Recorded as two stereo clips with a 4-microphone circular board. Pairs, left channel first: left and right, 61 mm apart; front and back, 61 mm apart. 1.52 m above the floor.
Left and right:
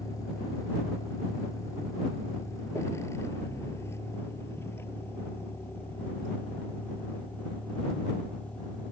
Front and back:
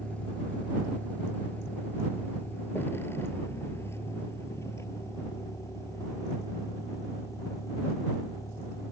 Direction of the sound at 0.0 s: 70° left.